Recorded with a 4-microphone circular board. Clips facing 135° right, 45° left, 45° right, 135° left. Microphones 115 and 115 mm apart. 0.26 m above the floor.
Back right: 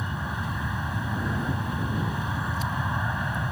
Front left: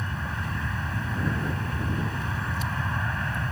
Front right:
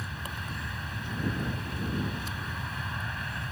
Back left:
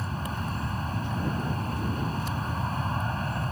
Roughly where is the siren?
I don't hear a siren.